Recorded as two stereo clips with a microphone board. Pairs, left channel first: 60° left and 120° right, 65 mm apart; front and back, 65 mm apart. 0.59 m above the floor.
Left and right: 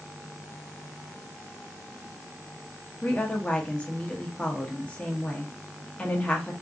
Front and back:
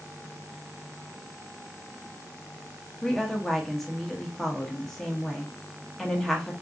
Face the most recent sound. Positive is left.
turn(degrees=75)